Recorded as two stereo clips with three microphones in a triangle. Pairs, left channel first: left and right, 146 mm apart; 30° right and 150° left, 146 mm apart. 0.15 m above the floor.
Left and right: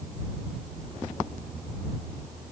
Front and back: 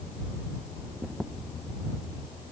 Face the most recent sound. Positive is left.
No sound to turn to.